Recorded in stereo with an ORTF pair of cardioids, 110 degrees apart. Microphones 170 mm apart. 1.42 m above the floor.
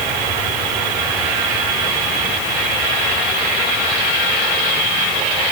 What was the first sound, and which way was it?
Only background noise.